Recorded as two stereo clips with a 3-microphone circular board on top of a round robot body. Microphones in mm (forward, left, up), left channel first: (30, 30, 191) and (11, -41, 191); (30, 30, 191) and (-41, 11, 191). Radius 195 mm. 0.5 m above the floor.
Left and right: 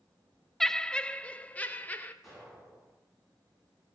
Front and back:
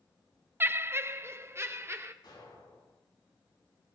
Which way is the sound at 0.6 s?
160° left.